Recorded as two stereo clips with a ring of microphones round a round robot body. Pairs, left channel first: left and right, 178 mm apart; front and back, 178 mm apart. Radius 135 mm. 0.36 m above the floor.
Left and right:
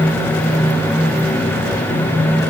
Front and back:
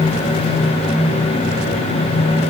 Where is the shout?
No shout in this recording.